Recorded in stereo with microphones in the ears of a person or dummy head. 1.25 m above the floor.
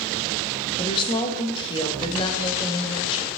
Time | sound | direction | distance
0.8 | a woman speaking | 30° left (ahead or behind) | 1.6 m